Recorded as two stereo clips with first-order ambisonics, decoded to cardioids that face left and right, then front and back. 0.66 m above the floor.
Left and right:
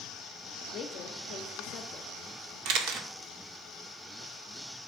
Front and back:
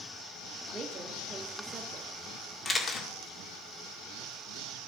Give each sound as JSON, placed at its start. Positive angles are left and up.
{"t": 0.7, "sound": "a woman speaking", "azimuth_deg": 125, "distance_m": 1.0}
{"t": 2.6, "sound": "a camera shutter", "azimuth_deg": -80, "distance_m": 1.9}